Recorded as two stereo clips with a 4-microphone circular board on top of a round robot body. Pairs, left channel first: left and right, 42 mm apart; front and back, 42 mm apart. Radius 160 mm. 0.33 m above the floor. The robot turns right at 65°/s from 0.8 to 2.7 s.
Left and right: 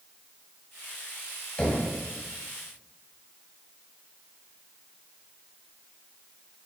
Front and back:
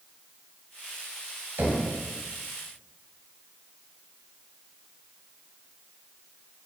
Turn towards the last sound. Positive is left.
turn(degrees=-135)